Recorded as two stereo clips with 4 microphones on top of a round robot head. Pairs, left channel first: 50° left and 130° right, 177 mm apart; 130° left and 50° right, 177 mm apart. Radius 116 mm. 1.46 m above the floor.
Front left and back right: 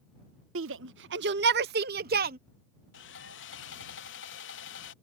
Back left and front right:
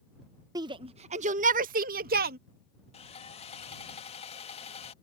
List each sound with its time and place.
0.6 s a shout: 120° right; by 2.4 s 90° right
2.9 s sawing: 70° left